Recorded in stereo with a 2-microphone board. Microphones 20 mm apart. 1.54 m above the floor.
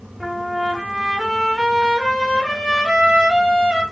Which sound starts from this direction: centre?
A trumpet, at 0.2 s.